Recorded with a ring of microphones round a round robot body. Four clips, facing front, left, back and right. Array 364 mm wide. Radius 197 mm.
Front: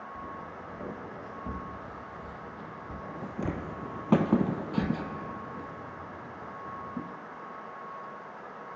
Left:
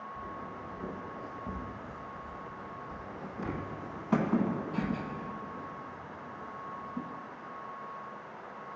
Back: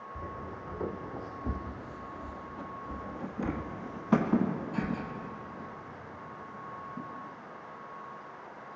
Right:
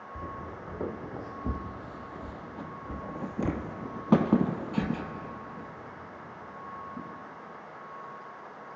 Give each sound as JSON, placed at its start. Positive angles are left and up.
{"t": 0.1, "sound": "footsteps", "azimuth_deg": -110, "distance_m": 3.0}